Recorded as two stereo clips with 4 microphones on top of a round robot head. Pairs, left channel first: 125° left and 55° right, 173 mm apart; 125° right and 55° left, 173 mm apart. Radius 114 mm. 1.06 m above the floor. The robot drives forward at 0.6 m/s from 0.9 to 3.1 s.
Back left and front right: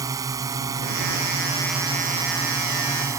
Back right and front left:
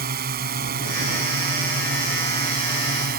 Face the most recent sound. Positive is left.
turn(degrees=20)